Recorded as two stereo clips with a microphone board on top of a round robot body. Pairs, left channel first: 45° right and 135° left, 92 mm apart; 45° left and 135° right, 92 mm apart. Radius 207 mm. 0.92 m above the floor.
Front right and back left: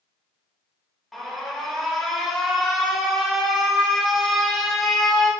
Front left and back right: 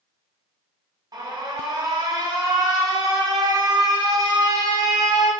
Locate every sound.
1.1 s an alarm: 135° right, 1.1 m